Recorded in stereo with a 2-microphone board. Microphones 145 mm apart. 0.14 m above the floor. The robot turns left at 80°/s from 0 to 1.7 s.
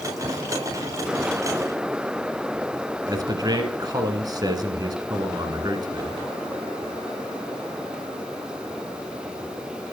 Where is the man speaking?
30° right (ahead or behind), 1.4 m.